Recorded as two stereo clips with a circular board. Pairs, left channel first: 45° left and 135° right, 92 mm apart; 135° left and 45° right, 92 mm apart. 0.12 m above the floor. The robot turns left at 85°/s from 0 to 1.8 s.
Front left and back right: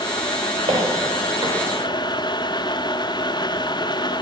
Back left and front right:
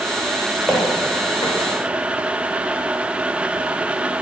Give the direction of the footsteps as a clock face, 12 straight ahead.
4 o'clock.